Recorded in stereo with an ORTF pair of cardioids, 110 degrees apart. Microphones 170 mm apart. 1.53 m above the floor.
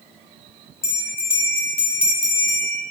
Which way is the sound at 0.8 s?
15° left.